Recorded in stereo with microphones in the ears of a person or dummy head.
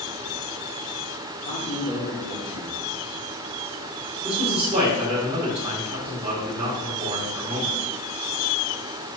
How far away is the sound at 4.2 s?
About 1.4 m.